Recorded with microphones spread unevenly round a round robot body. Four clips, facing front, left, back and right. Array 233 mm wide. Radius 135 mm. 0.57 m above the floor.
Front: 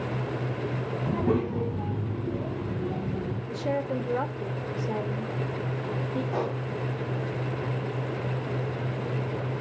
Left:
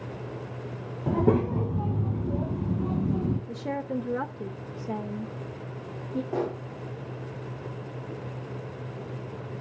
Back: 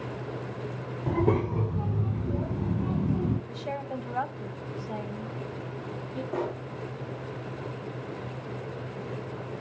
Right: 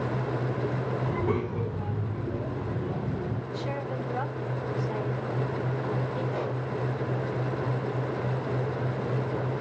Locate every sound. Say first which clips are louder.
1.1 s a child speaking: left 8 dB, back 1 dB; 100° left, 1.9 m; by 3.4 s 110° left, 4 m
3.5 s a woman speaking: left 1 dB, front 6 dB; 50° left, 1.8 m
6.3 s a pop: left 1 dB, back 2 dB; 75° left, 8.5 m